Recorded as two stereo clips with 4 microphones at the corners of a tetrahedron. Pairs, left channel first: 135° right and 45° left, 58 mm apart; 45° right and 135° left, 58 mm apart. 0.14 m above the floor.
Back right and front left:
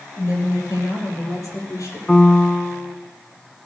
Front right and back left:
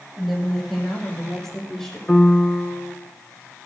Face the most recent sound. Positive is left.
turn(degrees=-80)